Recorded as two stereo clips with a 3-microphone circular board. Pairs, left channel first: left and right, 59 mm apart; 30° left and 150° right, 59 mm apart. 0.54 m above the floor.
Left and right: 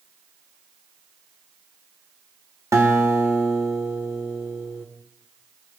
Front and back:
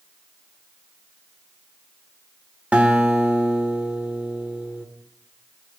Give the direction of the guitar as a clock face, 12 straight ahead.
3 o'clock.